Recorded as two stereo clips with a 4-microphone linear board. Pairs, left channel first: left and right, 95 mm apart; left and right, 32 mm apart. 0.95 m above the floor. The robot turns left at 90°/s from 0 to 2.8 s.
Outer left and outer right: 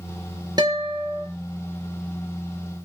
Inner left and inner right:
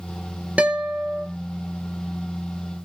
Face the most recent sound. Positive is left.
turn(degrees=25)